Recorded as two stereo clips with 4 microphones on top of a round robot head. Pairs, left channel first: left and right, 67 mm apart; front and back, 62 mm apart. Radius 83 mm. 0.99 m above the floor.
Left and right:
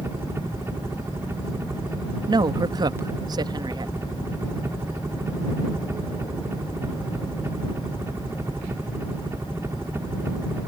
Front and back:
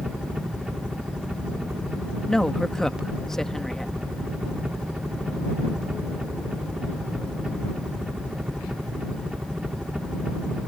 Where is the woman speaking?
85° right.